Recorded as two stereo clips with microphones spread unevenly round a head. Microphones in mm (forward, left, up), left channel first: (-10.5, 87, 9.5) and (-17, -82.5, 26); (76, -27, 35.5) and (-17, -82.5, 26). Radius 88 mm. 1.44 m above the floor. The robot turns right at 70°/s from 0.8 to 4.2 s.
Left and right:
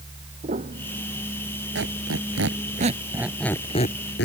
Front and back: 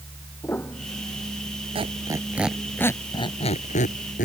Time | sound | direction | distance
0.4 | a piano | 40° right | ?
1.8 | a squeak | 115° right | ?